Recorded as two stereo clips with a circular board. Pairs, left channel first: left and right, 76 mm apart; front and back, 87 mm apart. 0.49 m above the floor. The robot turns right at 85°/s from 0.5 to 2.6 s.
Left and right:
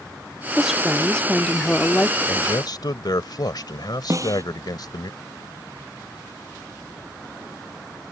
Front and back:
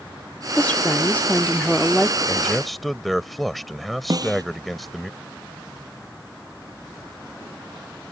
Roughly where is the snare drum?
Behind right.